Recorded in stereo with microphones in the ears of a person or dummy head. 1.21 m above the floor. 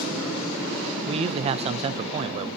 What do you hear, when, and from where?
1.1 s a man speaking: 35° right (ahead or behind), 0.6 m